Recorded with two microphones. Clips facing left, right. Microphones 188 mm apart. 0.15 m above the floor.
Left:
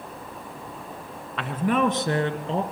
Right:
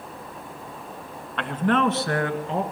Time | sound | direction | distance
1.4 | a man speaking | centre (ahead or behind) | 1.6 m